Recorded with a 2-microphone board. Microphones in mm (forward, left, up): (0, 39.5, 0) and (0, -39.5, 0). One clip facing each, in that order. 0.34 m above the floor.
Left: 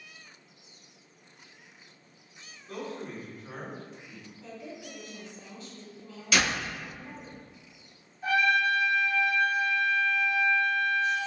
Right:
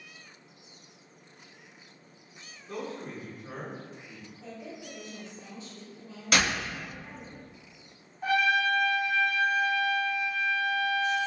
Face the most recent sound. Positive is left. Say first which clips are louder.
# even
turn(degrees=-70)  # may be behind; listen again after turning